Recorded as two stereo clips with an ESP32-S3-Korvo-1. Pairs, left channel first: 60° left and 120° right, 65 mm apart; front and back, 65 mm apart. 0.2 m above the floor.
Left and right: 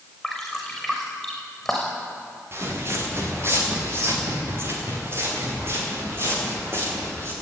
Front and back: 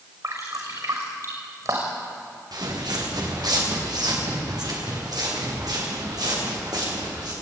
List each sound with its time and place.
0.2 s dripping: 145° left, 6.5 m
2.5 s footsteps: 170° right, 6 m